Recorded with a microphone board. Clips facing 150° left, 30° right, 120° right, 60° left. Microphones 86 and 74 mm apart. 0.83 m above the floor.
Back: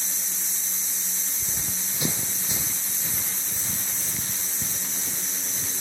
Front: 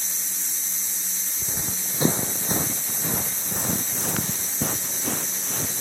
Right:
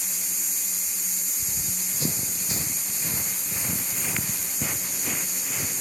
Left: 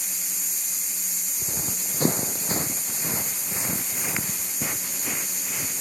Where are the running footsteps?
35° left; by 5.8 s 30° right.